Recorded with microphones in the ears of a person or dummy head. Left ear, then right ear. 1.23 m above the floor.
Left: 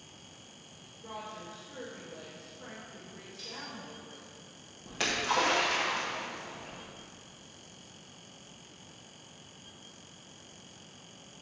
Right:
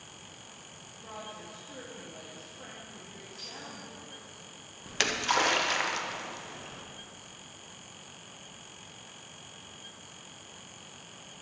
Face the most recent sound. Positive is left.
turn(degrees=-55)  # may be behind; listen again after turning